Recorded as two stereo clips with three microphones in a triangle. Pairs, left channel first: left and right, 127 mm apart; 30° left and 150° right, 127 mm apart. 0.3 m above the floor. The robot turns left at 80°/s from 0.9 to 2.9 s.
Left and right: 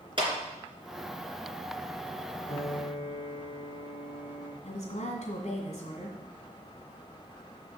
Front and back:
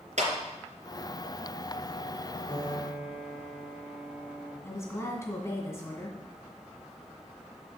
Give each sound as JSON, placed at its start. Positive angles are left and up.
{"t": 0.2, "sound": "a clap", "azimuth_deg": -140, "distance_m": 3.0}
{"t": 2.5, "sound": "a piano", "azimuth_deg": 95, "distance_m": 2.5}
{"t": 4.6, "sound": "a woman speaking", "azimuth_deg": 95, "distance_m": 2.0}